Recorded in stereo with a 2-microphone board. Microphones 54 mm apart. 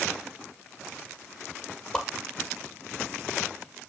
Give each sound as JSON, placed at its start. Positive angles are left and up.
{"t": 1.9, "sound": "a whoosh", "side_deg": 10, "distance_m": 1.9}